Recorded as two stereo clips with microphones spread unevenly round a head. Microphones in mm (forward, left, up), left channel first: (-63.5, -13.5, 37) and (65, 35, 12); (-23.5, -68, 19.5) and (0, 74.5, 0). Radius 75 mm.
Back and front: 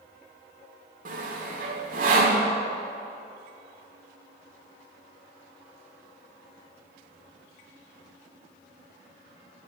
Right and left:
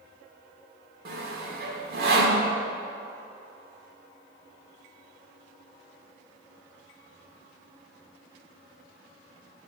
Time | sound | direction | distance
1.1 | sawing | 55° left | 1.6 m